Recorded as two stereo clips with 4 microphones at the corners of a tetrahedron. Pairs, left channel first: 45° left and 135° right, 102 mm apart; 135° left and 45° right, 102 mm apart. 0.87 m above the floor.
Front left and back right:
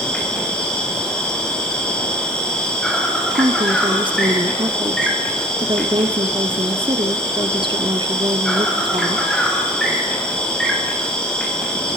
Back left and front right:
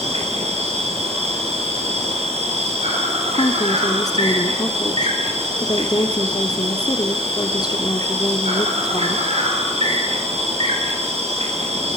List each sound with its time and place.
0.0 s an insect: 35° right, 6 m
3.4 s a woman speaking: 175° right, 1.7 m